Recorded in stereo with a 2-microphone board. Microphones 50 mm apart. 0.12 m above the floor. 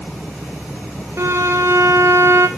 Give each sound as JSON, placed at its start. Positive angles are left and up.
{"t": 1.2, "sound": "a violin", "side_deg": -55, "distance_m": 0.9}